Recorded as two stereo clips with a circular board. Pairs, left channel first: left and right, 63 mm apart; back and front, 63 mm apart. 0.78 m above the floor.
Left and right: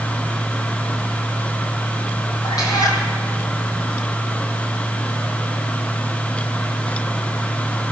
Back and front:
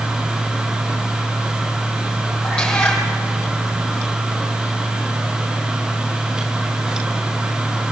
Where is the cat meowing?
105° left, 5 m.